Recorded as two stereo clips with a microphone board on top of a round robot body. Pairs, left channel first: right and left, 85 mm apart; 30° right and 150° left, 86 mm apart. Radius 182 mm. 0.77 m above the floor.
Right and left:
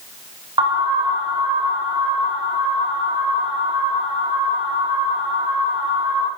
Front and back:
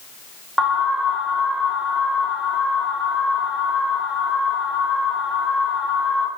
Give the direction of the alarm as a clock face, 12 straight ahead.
10 o'clock.